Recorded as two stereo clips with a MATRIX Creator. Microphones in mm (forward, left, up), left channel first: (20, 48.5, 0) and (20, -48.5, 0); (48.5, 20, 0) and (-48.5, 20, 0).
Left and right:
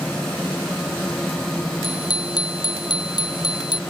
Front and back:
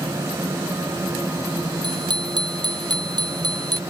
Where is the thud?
No thud in this recording.